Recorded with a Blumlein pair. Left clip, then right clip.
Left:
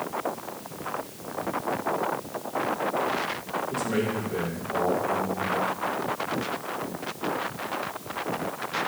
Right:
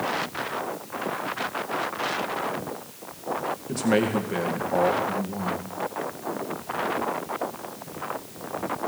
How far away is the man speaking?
About 1.9 m.